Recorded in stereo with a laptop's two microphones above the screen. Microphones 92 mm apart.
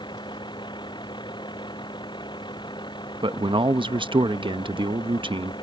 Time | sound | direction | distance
0.0 | a vehicle | 55° left (ahead or behind) | ?
3.2 | a man speaking | 65° right (ahead or behind) | ?